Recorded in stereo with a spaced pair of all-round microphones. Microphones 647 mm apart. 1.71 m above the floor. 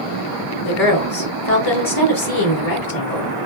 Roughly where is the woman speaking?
Left.